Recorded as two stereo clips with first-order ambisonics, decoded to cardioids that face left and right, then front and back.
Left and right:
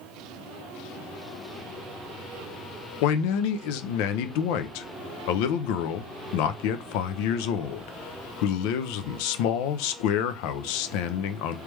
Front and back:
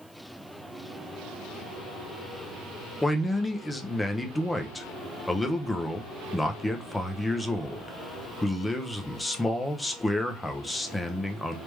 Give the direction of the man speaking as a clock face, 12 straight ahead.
9 o'clock.